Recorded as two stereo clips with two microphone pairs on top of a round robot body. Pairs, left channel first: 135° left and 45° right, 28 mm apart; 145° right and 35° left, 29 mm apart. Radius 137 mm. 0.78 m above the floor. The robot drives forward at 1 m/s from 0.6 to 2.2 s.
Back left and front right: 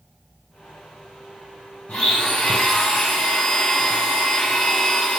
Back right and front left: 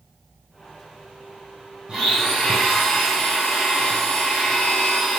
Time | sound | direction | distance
1.9 | a blender | 105° left | 1.6 m